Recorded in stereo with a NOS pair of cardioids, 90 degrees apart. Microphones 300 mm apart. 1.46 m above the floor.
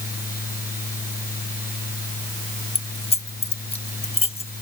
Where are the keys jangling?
20° left.